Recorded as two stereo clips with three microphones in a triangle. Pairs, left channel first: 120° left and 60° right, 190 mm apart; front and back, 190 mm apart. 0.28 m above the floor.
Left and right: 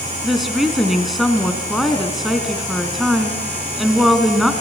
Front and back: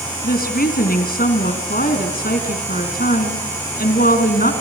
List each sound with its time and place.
0.2 s a woman speaking: 30° left, 3 m